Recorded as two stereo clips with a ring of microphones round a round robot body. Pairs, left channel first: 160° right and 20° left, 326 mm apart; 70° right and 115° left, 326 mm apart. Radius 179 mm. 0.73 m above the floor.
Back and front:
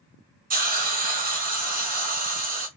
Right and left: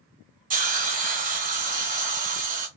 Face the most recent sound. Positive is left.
turn(degrees=65)